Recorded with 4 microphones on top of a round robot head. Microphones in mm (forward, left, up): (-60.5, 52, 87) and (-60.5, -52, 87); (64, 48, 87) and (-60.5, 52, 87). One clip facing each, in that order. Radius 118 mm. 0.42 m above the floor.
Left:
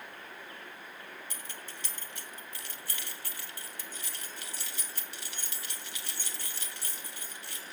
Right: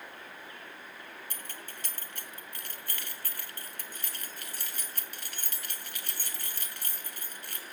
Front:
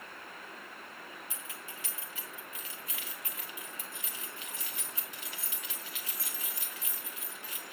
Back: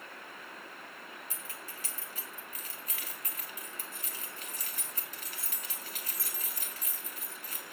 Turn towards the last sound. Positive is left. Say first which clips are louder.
# even, even
turn(degrees=-130)